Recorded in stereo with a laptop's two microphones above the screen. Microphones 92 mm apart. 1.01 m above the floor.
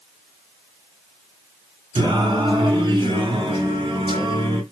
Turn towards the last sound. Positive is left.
turn(degrees=-60)  # may be behind; listen again after turning